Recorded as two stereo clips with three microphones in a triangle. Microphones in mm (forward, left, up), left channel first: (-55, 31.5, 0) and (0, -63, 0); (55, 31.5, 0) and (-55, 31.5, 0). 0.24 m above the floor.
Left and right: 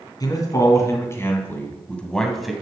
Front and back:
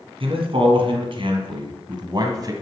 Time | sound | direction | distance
0.2 | a man speaking | 165° left | 2.5 m